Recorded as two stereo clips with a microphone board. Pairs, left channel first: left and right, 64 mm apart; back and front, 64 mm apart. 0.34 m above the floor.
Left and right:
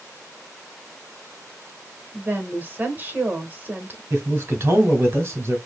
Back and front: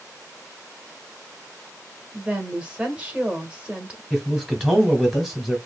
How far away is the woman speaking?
About 1.1 m.